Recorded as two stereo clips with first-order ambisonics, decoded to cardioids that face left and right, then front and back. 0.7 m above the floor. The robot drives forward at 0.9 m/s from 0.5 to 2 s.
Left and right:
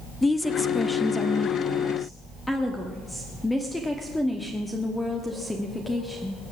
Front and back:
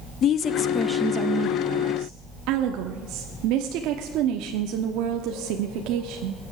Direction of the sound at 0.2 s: 15° left.